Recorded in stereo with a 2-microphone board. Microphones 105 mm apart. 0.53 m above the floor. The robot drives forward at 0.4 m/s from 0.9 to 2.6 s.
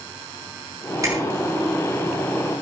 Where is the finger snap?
35° right (ahead or behind), 5 m.